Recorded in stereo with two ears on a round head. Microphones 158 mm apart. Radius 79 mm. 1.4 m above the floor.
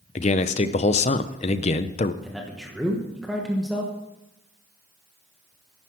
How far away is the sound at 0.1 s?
About 0.7 m.